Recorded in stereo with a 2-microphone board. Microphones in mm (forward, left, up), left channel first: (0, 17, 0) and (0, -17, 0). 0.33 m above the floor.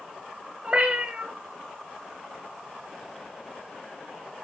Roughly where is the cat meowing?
Right.